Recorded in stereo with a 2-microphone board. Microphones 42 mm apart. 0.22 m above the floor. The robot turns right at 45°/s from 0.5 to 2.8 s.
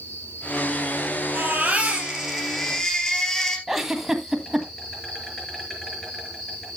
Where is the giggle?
5° right (ahead or behind), 1.7 m.